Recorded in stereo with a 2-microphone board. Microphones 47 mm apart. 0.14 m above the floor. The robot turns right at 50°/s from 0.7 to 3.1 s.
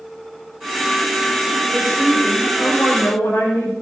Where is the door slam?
I don't hear a door slam.